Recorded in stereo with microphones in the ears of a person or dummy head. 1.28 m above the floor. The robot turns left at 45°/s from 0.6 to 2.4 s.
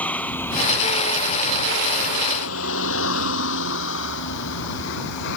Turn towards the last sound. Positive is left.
turn(degrees=65)  # may be behind; listen again after turning